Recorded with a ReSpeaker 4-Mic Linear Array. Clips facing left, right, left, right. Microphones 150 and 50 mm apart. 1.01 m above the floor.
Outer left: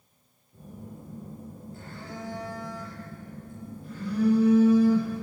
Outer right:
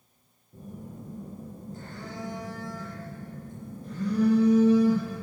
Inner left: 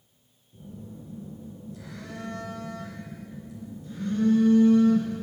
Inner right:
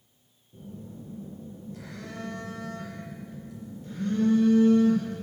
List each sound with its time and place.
0.5 s a phone buzzing: 40° right (ahead or behind), 7 m